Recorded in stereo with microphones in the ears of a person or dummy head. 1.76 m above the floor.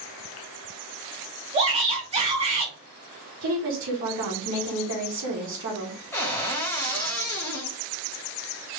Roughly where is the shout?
Right.